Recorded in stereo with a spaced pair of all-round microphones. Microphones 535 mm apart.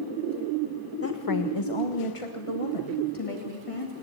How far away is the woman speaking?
About 0.9 m.